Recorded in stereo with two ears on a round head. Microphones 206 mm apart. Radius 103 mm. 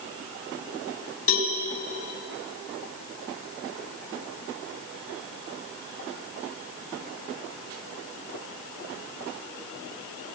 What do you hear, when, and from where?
1.3 s a cowbell: 60° left (ahead or behind), 4.5 m